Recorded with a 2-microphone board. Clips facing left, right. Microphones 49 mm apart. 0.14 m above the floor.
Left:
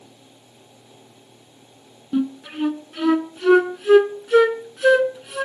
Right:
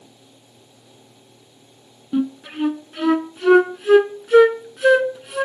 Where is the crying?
No crying in this recording.